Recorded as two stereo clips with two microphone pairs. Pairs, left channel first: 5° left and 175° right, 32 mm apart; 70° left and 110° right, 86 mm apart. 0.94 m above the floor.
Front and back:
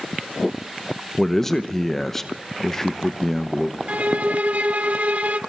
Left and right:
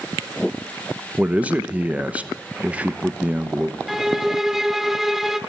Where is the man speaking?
50° right, 0.8 m.